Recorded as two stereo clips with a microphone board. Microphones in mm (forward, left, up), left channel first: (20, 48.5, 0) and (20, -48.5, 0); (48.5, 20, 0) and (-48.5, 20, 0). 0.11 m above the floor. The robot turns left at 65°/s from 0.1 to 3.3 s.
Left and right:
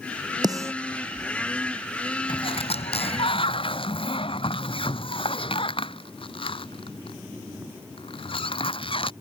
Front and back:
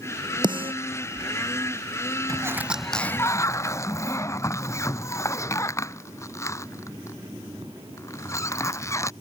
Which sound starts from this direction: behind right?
A snare drum, at 0.4 s.